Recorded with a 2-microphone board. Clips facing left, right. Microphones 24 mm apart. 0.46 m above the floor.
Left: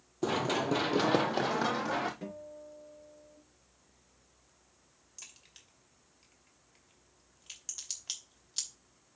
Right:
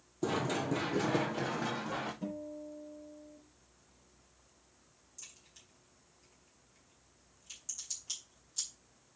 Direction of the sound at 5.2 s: 50° left (ahead or behind).